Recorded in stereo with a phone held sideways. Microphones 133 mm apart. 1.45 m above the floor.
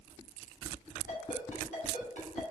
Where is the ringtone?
75° left (ahead or behind), 3.5 m.